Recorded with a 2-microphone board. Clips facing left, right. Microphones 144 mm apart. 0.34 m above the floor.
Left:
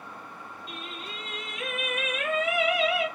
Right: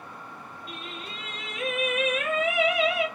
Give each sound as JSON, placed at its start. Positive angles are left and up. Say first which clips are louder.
{"t": 0.7, "sound": "singing", "louder": "right 1 dB", "side_deg": -50, "distance_m": 2.5}